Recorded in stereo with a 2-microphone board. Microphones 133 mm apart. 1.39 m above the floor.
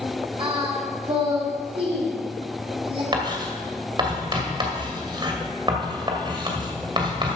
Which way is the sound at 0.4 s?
45° right (ahead or behind).